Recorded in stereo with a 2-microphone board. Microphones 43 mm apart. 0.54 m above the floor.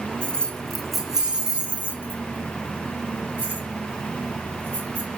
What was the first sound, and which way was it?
Keys jangling, 25° left (ahead or behind).